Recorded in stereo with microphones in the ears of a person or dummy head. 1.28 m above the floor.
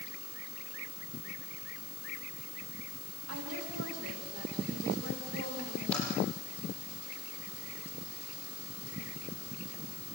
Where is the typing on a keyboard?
5° left (ahead or behind), 8.5 m.